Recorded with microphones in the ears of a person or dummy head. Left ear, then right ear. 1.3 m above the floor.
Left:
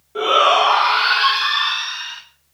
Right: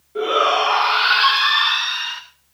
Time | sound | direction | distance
0.1 | a shout | 40° left (ahead or behind) | 1.7 m